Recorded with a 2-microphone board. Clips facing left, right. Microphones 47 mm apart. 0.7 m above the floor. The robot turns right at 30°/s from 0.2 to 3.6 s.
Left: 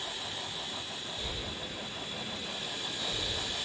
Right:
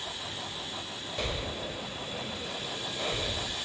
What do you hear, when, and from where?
1.2 s breathing: 75° right (ahead or behind), 1.7 m; by 3.5 s 35° right (ahead or behind), 1.7 m